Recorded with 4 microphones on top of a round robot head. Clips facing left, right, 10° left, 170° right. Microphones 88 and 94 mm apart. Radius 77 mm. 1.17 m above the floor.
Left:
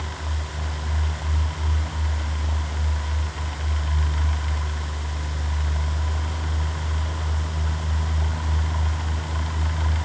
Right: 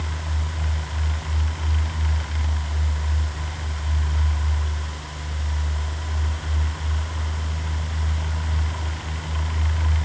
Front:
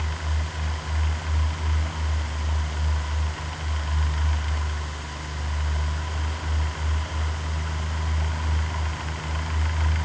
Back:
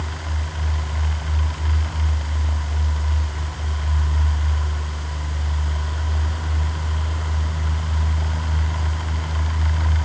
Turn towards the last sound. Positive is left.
No sound to turn to.